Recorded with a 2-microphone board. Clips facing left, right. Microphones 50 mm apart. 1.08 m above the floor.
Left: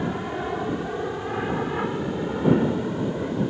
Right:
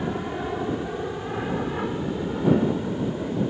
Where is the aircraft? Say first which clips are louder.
Left 1 dB; 10° left (ahead or behind); by 3.5 s 20° left (ahead or behind).